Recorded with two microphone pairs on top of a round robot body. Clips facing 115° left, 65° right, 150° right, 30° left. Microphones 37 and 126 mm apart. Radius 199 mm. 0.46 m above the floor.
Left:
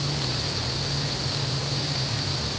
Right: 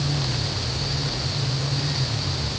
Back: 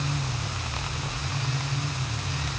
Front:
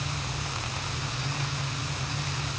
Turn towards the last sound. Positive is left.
No sound to turn to.